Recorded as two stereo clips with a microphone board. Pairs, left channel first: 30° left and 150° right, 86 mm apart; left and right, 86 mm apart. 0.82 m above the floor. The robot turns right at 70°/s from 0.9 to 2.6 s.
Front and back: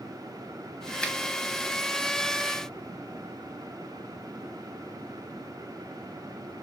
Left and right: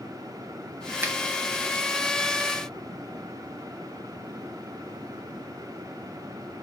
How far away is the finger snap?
About 0.8 m.